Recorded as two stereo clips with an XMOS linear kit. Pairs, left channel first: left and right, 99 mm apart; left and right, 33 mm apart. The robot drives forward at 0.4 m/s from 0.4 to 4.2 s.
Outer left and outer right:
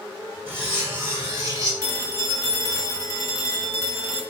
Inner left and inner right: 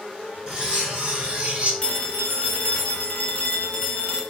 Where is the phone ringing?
30° left (ahead or behind), 0.9 m.